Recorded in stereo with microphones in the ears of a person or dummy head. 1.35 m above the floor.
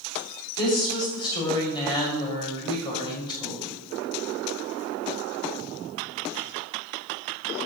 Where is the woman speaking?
20° left (ahead or behind), 6 m.